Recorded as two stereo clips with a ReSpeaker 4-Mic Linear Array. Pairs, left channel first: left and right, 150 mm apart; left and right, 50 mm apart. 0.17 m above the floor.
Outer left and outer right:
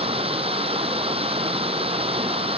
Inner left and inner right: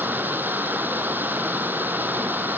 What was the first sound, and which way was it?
Running water, 40° right (ahead or behind).